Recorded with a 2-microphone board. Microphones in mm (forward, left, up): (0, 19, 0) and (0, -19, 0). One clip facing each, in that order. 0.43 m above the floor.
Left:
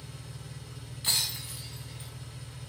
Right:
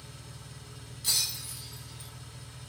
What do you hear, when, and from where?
0.0 s an engine running: 5° left (ahead or behind), 1.6 m
1.0 s breaking glass: 40° left (ahead or behind), 0.6 m